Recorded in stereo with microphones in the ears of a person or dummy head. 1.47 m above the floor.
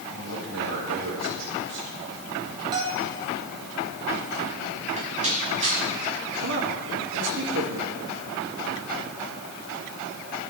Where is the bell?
20° right (ahead or behind), 5 m.